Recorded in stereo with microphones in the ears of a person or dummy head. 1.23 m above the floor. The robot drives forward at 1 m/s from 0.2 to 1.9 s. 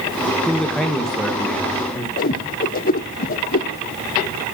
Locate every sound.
0.5 s a man speaking: 5° left (ahead or behind), 0.9 m; by 2.1 s centre (ahead or behind), 2.5 m
2.2 s a whoosh: 45° left (ahead or behind), 0.8 m